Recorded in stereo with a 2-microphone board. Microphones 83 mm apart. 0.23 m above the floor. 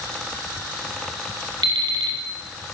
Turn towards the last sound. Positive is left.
turn(degrees=-60)  # may be behind; listen again after turning